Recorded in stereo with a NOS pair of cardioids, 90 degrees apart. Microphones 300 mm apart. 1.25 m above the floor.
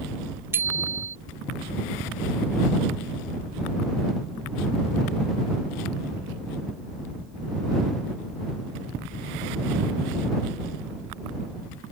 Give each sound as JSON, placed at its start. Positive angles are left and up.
{"t": 0.5, "sound": "a bicycle bell", "azimuth_deg": -5}